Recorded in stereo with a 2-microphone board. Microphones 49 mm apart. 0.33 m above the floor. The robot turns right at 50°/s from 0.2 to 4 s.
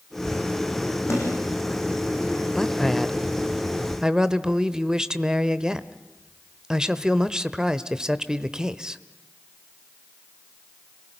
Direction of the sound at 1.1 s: 70° left (ahead or behind).